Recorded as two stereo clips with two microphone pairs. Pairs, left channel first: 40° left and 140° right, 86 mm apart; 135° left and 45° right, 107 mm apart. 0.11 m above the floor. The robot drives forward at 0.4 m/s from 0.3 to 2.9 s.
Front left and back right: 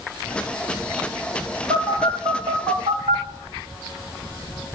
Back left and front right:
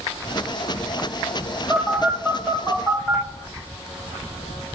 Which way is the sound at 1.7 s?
135° right.